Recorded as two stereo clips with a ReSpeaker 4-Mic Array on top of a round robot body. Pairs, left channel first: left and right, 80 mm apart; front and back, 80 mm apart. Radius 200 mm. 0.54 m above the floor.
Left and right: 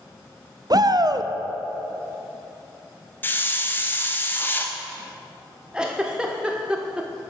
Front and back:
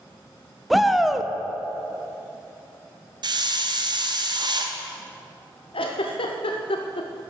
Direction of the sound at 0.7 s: 90° right.